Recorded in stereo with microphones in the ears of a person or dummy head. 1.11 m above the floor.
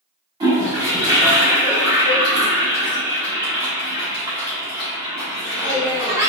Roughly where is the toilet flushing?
Right.